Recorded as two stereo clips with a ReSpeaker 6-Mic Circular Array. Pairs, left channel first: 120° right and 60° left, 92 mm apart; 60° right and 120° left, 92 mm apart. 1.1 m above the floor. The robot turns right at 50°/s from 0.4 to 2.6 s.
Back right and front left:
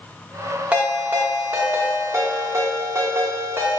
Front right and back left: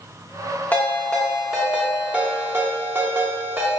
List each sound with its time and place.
0.7 s a ringtone: 10° right, 0.7 m; by 3.8 s 85° left, 0.7 m